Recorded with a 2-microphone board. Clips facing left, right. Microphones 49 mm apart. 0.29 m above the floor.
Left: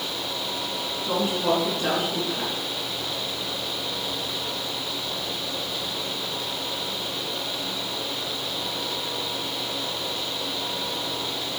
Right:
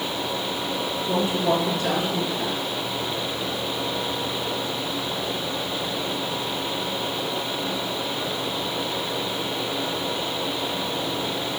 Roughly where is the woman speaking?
Left.